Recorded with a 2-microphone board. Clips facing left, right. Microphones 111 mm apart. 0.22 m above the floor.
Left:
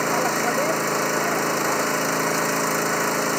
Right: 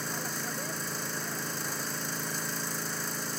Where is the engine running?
75° left (ahead or behind).